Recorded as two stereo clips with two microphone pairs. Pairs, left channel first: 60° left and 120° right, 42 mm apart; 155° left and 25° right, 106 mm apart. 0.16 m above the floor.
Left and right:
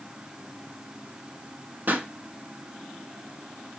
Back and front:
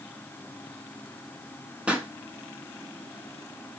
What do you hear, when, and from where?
1.9 s a pop: 100° right, 0.6 m